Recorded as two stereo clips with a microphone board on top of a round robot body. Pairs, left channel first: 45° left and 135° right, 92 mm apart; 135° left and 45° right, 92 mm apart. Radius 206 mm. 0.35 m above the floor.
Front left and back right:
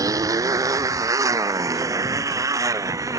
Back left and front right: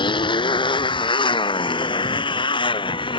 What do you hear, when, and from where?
0.0 s a motorcycle: 170° left